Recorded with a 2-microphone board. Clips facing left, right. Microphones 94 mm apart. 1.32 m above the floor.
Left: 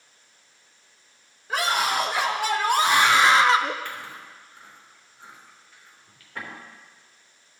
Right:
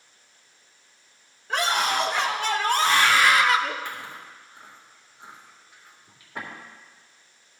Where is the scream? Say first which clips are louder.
Even; 5° left (ahead or behind), 2.5 m; by 3.8 s 25° left (ahead or behind), 0.6 m.